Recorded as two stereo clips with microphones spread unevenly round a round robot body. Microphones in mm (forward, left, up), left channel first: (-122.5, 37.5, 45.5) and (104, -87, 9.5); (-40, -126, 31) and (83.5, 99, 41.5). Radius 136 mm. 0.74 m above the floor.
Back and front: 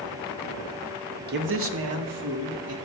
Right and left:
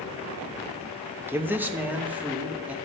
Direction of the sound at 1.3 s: 20° right.